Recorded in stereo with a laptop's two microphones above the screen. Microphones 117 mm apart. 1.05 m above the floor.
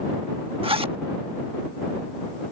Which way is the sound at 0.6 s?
50° right (ahead or behind).